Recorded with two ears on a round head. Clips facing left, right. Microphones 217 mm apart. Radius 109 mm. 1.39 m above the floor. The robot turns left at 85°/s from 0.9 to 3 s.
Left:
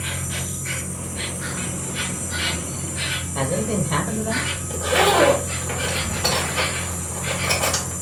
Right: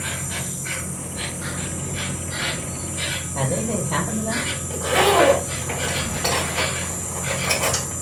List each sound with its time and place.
0.0 s an insect: 170° right, 2.5 m; by 8.0 s 15° left, 2.5 m
3.4 s a man speaking: 20° left (ahead or behind), 0.9 m
4.7 s a zipper: 5° left (ahead or behind), 2 m